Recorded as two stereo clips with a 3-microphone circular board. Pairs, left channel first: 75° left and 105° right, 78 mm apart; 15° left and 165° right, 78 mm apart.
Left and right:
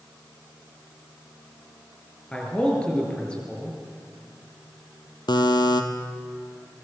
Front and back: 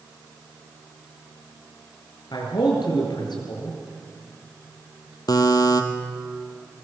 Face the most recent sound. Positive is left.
turn(degrees=50)